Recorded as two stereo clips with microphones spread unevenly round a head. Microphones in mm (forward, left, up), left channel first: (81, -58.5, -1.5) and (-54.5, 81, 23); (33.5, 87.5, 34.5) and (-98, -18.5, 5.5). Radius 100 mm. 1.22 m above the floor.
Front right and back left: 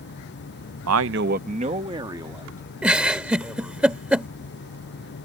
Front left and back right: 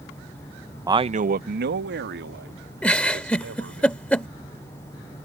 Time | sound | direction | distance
0.9 | a man speaking | 145° left | ?
2.8 | a giggle | 80° left | ?